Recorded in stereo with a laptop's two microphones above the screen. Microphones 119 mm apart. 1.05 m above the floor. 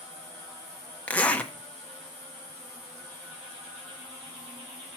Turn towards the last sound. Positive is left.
turn(degrees=10)  # may be behind; listen again after turning